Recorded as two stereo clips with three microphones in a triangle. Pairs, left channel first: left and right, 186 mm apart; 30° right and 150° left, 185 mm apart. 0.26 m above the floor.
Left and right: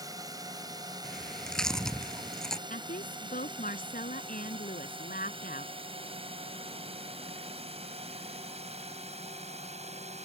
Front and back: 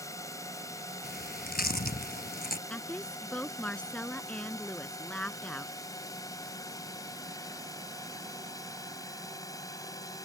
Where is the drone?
65° right; by 10.2 s 90° right.